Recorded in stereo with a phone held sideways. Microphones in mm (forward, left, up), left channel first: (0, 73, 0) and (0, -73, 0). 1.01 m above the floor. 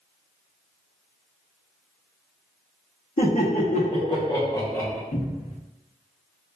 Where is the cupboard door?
70° left (ahead or behind), 0.8 m.